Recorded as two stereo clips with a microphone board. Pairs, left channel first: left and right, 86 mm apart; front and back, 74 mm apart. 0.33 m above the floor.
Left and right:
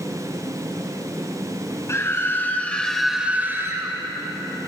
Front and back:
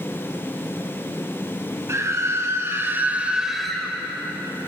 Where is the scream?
140° left, 1.9 m; by 4.0 s 75° right, 1.4 m.